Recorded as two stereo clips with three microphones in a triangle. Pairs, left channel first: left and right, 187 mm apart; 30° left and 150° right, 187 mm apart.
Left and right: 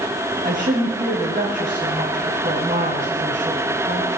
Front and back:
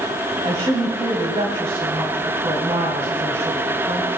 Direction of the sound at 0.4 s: 100° right.